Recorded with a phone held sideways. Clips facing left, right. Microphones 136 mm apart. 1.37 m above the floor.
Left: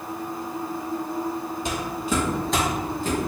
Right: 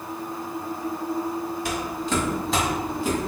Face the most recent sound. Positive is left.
turn(degrees=-15)  # may be behind; listen again after turning